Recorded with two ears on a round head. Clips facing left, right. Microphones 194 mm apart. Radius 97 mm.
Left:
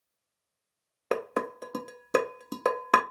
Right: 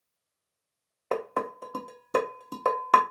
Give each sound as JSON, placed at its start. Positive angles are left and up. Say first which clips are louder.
{"t": 1.1, "sound": "dishes clattering", "louder": "left 1 dB", "side_deg": 25, "distance_m": 0.7}